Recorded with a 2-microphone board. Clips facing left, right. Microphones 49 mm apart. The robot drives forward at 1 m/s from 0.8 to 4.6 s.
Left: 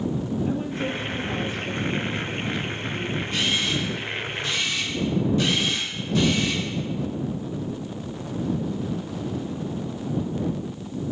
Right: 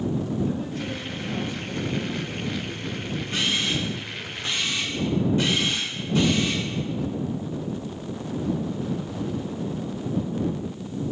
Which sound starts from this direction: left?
A woman speaking, at 0.5 s.